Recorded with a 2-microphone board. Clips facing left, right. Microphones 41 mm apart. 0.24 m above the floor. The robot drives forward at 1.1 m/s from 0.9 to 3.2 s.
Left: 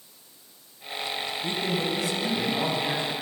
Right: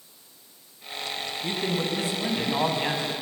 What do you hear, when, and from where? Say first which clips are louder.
1.4 s a man speaking: right 1 dB; 30° right (ahead or behind), 2.5 m; by 3.1 s 40° right (ahead or behind), 1.9 m